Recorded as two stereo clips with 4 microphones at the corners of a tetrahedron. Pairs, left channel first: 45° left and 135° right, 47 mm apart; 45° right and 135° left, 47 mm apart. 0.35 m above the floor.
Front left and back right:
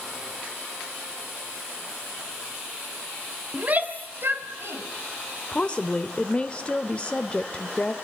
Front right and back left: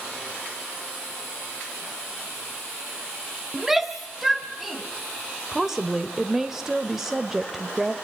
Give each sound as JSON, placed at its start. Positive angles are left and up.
{"t": 3.5, "sound": "a shout", "azimuth_deg": -150, "distance_m": 1.6}
{"t": 5.5, "sound": "a woman speaking", "azimuth_deg": 65, "distance_m": 1.2}